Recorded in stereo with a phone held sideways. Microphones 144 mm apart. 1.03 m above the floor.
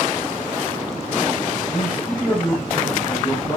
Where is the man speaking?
5° left (ahead or behind), 6 m.